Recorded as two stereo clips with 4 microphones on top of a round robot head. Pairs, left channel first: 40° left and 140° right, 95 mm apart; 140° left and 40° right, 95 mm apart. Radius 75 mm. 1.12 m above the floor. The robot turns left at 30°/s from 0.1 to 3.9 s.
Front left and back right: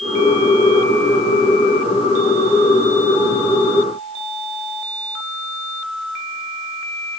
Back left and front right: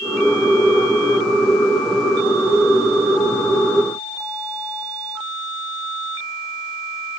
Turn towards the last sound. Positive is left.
No sound to turn to.